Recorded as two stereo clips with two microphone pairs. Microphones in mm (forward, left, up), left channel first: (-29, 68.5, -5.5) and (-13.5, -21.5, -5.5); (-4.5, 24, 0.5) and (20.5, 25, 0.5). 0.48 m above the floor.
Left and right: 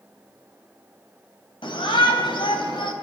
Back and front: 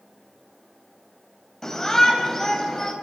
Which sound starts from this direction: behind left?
A shout, at 1.6 s.